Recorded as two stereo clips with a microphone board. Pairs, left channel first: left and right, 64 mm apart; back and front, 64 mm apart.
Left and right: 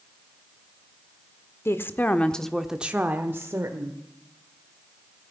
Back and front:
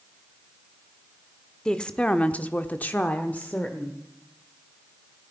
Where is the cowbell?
I don't hear a cowbell.